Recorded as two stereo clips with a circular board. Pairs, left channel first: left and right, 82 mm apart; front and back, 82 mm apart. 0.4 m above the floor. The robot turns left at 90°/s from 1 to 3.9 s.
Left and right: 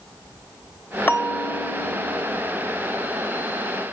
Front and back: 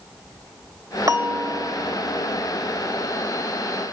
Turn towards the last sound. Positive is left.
turn(degrees=-105)